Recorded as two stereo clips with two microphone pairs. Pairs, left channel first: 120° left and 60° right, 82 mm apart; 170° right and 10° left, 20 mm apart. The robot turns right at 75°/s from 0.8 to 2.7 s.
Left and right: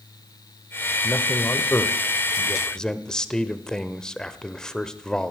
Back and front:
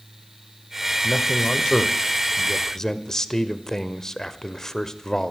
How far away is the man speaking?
About 0.9 m.